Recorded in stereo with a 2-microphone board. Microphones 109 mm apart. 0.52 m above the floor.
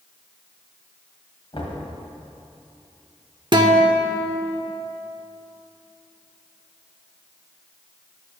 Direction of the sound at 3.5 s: 45° right (ahead or behind).